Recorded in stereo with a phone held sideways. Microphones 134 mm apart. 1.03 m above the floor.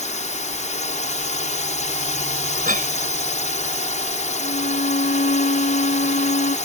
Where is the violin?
90° left.